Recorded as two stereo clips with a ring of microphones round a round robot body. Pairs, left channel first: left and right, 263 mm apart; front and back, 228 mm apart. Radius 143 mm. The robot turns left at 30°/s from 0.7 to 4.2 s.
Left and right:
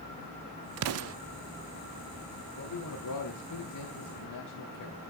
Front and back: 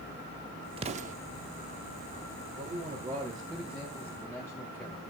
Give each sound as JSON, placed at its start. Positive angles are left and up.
{"t": 0.8, "sound": "an explosion", "azimuth_deg": -115, "distance_m": 0.5}
{"t": 2.6, "sound": "a man speaking", "azimuth_deg": 130, "distance_m": 3.0}